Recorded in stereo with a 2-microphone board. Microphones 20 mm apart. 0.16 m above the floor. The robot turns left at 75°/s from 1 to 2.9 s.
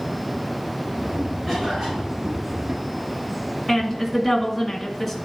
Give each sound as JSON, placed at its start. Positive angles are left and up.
{"t": 1.5, "sound": "a cough", "azimuth_deg": -15, "distance_m": 3.0}
{"t": 3.7, "sound": "a woman speaking", "side_deg": 0, "distance_m": 1.5}